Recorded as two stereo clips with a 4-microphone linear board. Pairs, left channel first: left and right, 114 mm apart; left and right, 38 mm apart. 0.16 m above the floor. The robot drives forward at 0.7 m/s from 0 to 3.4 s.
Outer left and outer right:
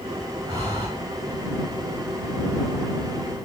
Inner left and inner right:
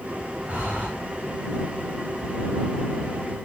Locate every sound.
0.5 s breathing: 35° right (ahead or behind), 8 m; by 0.9 s 40° right (ahead or behind), 8 m